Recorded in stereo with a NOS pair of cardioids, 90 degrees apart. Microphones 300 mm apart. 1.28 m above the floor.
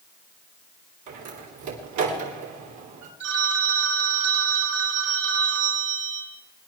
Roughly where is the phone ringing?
Ahead right.